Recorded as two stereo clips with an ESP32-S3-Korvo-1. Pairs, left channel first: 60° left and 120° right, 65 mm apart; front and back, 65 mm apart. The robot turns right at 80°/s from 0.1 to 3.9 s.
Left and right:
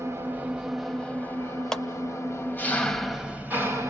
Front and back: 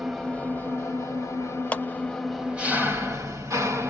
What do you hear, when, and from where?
0.0 s an engine running: 90° right, 1.7 m; by 3.9 s 145° right, 1.7 m
1.7 s a clap: 5° right, 0.7 m; by 1.9 s 5° left, 0.7 m